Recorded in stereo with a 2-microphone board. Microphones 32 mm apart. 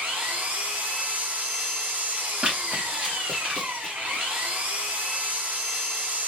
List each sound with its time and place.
0.0 s an engine running: 55° right (ahead or behind), 1.8 m
2.4 s running footsteps: 30° right (ahead or behind), 1.9 m; by 4.3 s centre (ahead or behind), 1.7 m